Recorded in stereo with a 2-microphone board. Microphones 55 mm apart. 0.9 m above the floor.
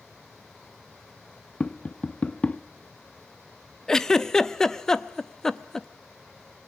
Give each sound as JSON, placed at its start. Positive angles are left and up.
{"t": 1.6, "sound": "tapping", "side_deg": 20, "distance_m": 0.5}
{"t": 3.9, "sound": "a giggle", "side_deg": 10, "distance_m": 0.7}